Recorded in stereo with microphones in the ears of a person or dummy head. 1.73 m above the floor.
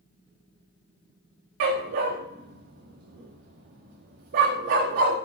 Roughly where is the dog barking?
Right.